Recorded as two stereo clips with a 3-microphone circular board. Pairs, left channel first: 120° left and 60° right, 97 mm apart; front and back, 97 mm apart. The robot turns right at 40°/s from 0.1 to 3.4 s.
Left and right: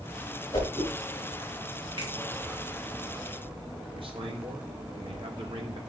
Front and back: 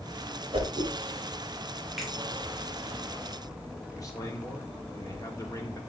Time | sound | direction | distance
0.5 | a whoosh | 165° left | 3.5 m
2.0 | a finger snap | 90° right | 3 m
3.9 | a man speaking | 50° right | 1.7 m